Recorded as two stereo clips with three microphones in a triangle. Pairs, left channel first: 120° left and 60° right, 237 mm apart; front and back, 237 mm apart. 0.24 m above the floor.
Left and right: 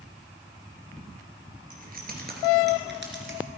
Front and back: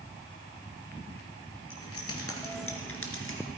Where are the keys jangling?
5° right, 3 m; by 3.4 s 30° right, 2 m.